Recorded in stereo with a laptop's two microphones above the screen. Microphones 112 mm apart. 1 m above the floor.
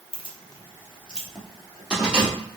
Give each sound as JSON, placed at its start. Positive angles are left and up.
{"t": 0.1, "sound": "keys jangling", "side_deg": 55, "distance_m": 0.8}